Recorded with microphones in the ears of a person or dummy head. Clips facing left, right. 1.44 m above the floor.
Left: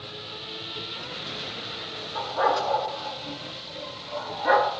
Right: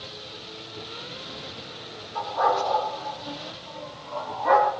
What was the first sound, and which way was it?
A dog barking, 45° left (ahead or behind).